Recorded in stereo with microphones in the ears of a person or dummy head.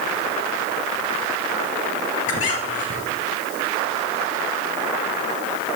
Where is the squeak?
45° left (ahead or behind), 2.5 m.